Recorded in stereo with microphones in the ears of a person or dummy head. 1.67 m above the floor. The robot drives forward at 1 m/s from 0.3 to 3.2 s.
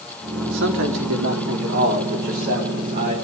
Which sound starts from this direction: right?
A man speaking, at 0.4 s.